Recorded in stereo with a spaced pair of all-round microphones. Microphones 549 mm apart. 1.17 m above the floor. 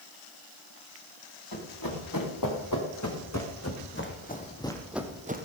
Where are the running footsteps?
40° left (ahead or behind), 5.5 m; by 5.5 s 20° right (ahead or behind), 1.6 m.